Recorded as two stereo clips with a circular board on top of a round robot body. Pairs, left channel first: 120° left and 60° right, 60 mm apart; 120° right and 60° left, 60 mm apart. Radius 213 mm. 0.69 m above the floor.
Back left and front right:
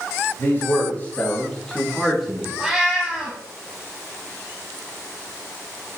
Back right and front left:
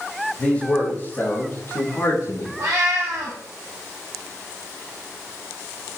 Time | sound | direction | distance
0.4 | a man speaking | 165° left | 3.5 m
2.6 | a cat meowing | 20° left | 0.6 m